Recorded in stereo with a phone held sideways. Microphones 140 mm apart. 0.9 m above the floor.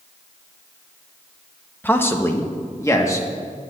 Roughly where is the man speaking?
Centre.